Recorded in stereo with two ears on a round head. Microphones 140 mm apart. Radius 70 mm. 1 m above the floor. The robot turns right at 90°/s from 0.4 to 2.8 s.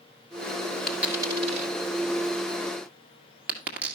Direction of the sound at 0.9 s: 5° left (ahead or behind).